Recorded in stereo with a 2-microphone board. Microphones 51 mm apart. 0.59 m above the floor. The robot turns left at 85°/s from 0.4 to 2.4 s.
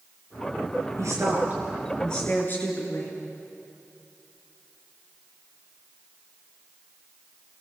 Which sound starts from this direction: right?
A woman speaking, at 1.0 s.